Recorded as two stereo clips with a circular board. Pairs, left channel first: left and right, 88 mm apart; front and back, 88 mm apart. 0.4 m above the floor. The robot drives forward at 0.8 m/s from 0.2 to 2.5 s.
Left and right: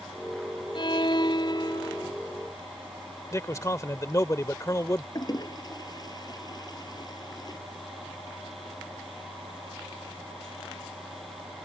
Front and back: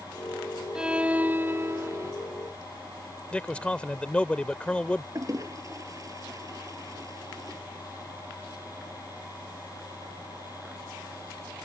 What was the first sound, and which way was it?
A violin, 100° left.